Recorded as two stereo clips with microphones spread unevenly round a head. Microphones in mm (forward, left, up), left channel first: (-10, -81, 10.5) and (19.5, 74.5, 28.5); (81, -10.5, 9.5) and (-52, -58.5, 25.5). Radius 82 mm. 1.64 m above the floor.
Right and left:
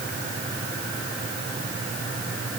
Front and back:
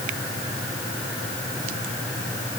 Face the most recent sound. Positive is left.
No sound to turn to.